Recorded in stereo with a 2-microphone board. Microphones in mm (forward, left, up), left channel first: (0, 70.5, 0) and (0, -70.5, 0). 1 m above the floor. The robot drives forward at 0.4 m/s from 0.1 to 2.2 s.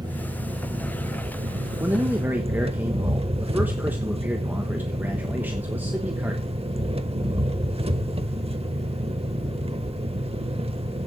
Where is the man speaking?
15° right (ahead or behind), 1.1 m.